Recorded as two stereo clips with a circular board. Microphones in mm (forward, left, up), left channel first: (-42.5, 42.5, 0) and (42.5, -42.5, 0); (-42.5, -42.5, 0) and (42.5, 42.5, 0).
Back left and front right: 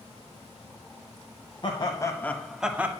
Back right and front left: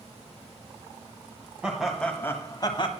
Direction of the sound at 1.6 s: 125° left.